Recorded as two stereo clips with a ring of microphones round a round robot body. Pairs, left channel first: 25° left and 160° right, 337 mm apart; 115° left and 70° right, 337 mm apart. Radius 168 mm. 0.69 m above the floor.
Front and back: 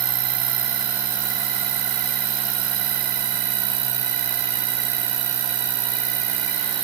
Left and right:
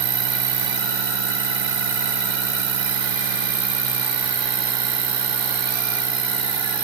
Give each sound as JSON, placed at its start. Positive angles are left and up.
{"t": 0.0, "sound": "an insect", "azimuth_deg": -140}